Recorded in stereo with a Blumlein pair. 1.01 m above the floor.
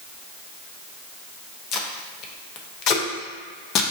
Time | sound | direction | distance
1.7 | tape being pulled | 35° left | 0.6 m